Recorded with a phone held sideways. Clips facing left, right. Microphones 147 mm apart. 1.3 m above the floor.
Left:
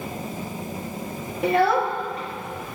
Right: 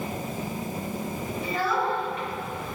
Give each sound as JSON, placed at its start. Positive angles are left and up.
{"t": 1.4, "sound": "a child speaking", "side_deg": 70, "distance_m": 1.2}